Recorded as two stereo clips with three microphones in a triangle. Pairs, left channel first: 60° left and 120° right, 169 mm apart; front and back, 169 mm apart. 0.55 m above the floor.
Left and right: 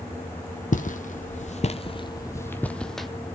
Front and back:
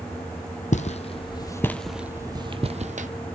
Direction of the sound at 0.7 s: 35° left.